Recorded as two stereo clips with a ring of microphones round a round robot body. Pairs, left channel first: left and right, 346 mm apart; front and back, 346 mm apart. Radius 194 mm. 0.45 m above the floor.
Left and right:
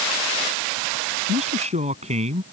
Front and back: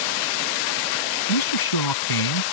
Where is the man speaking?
15° right.